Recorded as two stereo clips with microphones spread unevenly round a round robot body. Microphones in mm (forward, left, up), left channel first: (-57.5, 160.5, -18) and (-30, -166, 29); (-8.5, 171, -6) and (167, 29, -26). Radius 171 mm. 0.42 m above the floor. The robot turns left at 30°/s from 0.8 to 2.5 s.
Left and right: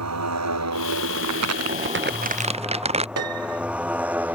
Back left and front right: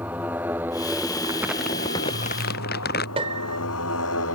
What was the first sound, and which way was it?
A motorcycle, 125° right.